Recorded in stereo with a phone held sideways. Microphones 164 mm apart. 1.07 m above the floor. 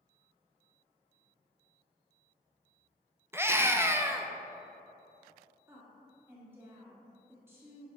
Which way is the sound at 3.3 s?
15° right (ahead or behind).